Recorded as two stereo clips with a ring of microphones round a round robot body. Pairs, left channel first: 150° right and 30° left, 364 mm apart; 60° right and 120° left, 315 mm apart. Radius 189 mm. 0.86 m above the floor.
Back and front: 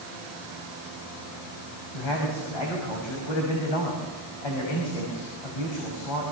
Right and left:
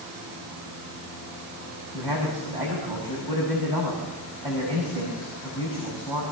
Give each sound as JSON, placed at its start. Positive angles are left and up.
{"t": 1.9, "sound": "a man speaking", "azimuth_deg": -160, "distance_m": 5.5}